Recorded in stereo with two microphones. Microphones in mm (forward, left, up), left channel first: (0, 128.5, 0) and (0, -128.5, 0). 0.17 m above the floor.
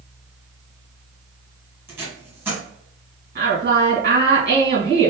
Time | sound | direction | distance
1.9 | tape being pulled | 10° right (ahead or behind) | 1.6 m
3.4 | a woman speaking | 40° right (ahead or behind) | 1.9 m